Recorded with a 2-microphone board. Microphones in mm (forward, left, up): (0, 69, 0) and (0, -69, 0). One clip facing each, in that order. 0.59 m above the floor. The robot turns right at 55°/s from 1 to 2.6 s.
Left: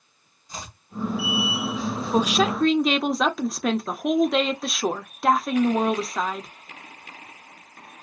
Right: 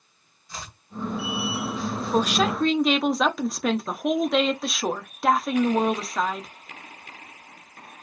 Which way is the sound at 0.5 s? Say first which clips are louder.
Left 1 dB; 15° left (ahead or behind).